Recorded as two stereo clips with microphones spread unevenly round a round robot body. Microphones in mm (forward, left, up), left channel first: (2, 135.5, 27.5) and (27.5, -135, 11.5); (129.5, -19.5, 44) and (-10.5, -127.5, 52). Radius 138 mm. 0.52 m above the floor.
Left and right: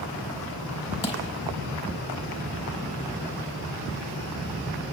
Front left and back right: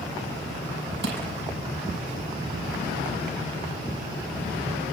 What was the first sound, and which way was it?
Crushing, 165° left.